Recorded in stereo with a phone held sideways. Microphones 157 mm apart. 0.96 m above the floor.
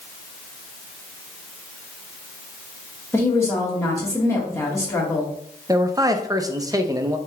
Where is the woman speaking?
20° left (ahead or behind), 1.4 m.